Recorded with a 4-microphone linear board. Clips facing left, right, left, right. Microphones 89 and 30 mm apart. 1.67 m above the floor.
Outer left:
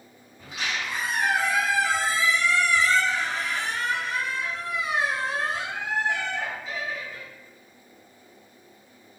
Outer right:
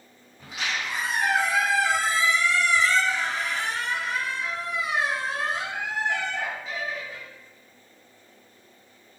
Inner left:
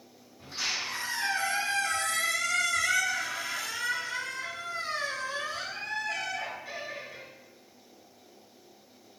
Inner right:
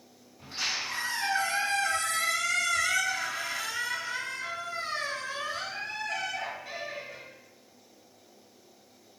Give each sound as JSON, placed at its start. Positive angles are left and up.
{"t": 0.4, "sound": "a squeak", "side_deg": -40, "distance_m": 1.8}